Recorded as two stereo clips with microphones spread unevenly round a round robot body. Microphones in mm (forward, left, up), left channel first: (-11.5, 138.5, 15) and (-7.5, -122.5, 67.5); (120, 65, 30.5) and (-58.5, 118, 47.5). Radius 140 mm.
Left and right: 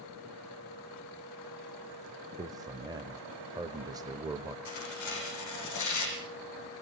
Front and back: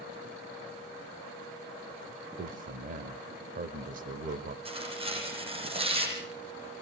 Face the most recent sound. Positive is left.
turn(degrees=105)